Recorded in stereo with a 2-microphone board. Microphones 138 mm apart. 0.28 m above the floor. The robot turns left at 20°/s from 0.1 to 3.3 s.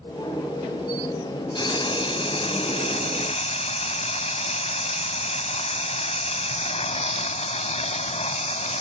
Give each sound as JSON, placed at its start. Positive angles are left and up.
{"t": 1.6, "sound": "frying", "azimuth_deg": 135}